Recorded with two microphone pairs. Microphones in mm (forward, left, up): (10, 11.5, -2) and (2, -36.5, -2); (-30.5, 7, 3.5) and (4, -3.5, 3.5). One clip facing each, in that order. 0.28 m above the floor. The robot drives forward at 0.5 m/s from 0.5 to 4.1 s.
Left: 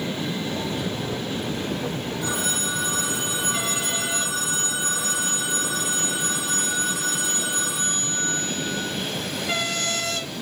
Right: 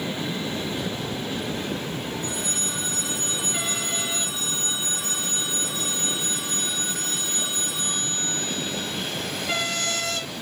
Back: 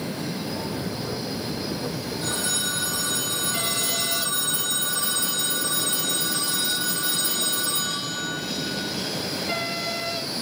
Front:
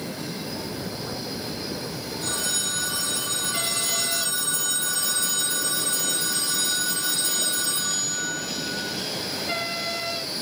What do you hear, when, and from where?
2.2 s a phone ringing: 85° left, 5.5 m; by 8.9 s 95° left, 5.5 m